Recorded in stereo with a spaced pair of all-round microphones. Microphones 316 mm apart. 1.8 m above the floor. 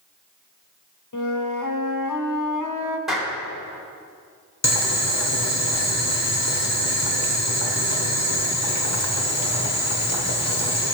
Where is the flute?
65° left (ahead or behind), 1.0 m.